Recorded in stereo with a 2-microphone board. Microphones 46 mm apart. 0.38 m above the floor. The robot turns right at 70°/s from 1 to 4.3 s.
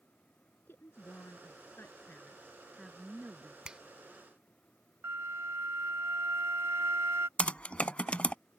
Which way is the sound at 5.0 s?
70° right (ahead or behind).